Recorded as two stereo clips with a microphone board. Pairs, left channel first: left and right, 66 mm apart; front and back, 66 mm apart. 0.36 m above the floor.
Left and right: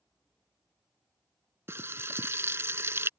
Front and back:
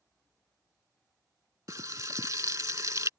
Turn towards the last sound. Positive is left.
turn(degrees=-140)